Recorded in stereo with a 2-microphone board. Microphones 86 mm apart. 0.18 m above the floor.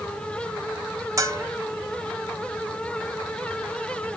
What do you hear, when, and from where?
1.2 s a bell: 35° right (ahead or behind), 0.7 m